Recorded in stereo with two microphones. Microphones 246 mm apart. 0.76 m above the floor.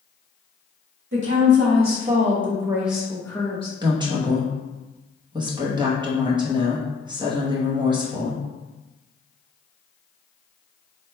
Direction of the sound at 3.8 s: 20° right (ahead or behind).